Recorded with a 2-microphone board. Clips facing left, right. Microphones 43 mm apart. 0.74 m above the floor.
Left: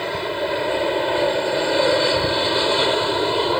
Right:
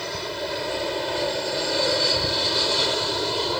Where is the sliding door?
No sliding door in this recording.